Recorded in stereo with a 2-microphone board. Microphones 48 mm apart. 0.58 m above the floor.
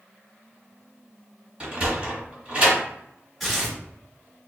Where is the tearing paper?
Centre (ahead or behind), 1.4 m.